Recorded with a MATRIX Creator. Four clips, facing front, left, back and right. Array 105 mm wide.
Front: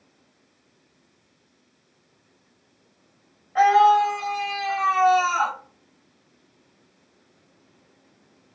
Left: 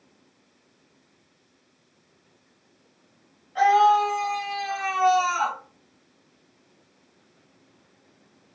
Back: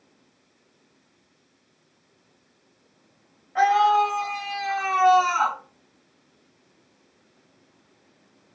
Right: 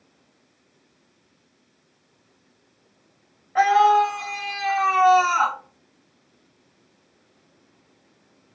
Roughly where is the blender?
No blender in this recording.